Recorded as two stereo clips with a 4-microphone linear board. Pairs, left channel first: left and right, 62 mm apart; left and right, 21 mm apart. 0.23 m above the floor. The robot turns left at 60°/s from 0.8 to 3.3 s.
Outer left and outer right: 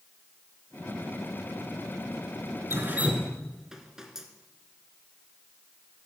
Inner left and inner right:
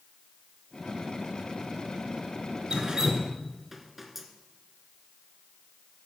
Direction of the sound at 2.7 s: 45° right (ahead or behind).